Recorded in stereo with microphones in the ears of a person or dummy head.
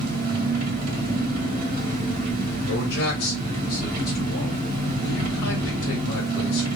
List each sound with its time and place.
0.0 s an engine running: 50° right (ahead or behind), 1.4 m
2.7 s a man speaking: 80° left, 1.5 m